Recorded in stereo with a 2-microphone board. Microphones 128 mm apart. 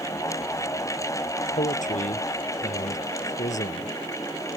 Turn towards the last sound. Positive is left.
turn(degrees=70)  # may be behind; listen again after turning